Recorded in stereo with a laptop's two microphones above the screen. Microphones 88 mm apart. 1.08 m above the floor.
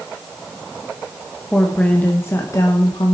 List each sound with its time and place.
1.5 s a woman speaking: 10° left (ahead or behind), 1.1 m; by 3.1 s 55° left (ahead or behind), 1.0 m